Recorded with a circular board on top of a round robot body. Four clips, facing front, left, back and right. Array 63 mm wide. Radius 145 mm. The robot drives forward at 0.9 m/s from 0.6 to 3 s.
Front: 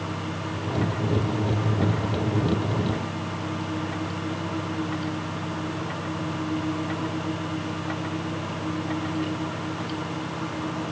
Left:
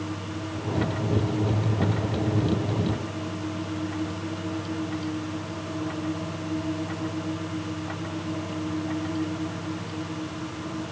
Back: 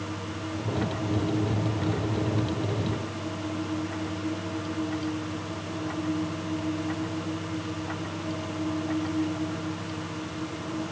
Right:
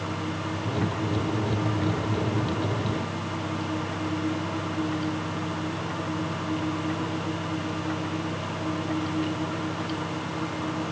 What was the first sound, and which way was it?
Only background noise.